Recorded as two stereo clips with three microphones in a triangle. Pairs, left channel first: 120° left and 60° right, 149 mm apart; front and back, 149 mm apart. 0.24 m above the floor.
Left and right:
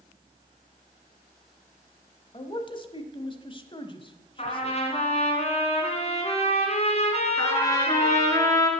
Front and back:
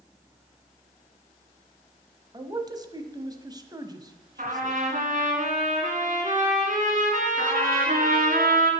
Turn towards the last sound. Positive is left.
turn(degrees=-170)